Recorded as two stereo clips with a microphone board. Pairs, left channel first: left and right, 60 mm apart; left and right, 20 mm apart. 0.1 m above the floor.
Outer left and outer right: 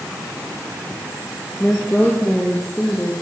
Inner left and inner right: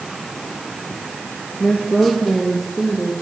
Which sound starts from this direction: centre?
A woman speaking, at 1.6 s.